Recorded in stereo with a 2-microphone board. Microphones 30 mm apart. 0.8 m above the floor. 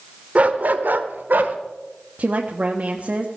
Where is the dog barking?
45° right (ahead or behind), 1.0 m; by 1.6 s 70° right (ahead or behind), 1.4 m.